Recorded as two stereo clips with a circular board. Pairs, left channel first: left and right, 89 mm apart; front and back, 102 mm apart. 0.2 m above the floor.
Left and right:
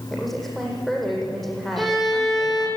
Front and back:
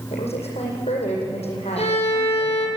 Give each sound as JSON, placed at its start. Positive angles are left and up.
{"t": 0.1, "sound": "a woman speaking", "azimuth_deg": 5, "distance_m": 8.5}
{"t": 1.8, "sound": "a violin", "azimuth_deg": 0, "distance_m": 5.5}